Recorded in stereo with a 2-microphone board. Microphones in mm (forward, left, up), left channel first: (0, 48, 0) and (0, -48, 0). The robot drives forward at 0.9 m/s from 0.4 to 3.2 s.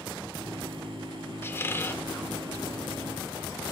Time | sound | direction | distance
1.4 | a squeak | 25° left (ahead or behind) | 0.7 m